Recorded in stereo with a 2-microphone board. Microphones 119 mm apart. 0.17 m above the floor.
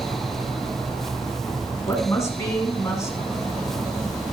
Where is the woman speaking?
25° left (ahead or behind), 1.8 m.